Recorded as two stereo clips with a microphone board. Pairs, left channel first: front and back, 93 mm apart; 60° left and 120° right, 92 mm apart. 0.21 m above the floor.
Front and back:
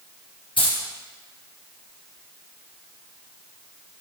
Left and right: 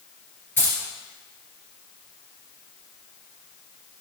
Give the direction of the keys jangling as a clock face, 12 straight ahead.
12 o'clock.